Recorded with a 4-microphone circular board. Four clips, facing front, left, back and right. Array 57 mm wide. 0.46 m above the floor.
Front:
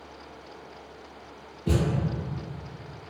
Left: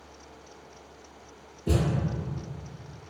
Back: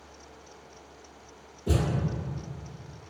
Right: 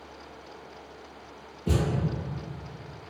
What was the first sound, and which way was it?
A thud, 30° right.